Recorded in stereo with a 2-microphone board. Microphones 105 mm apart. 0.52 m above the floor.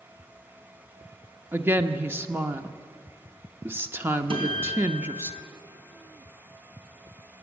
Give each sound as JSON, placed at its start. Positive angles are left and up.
{"t": 1.5, "sound": "a woman speaking", "side_deg": -20, "distance_m": 0.7}
{"t": 4.3, "sound": "a guitar", "side_deg": -60, "distance_m": 3.0}